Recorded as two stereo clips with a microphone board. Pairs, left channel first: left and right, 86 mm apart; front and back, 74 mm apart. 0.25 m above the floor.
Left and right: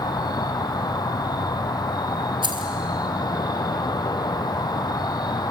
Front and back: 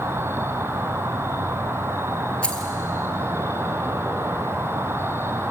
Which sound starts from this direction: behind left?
An insect, at 0.0 s.